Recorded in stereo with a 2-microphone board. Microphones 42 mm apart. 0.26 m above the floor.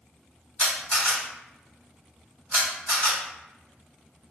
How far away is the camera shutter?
About 1.9 m.